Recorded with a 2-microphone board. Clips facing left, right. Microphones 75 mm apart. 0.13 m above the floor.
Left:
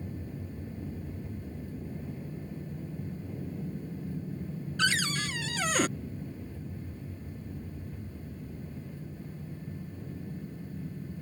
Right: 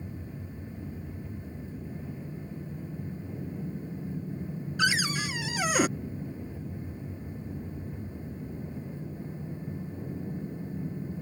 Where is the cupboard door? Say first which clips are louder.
Right 2 dB; 10° right (ahead or behind).